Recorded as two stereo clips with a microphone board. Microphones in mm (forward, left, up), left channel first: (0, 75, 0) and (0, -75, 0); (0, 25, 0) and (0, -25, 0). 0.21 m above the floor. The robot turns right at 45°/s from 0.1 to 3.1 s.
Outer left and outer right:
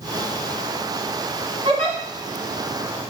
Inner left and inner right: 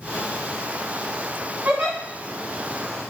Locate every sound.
1.6 s a giggle: 40° right (ahead or behind), 1.9 m